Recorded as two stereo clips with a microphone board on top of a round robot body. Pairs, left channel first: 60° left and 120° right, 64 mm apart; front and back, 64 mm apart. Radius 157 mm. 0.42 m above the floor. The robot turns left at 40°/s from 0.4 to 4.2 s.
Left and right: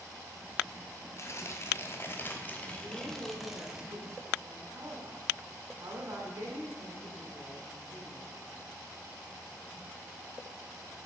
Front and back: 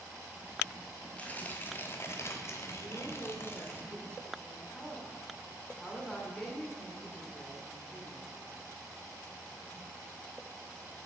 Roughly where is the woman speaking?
Ahead right.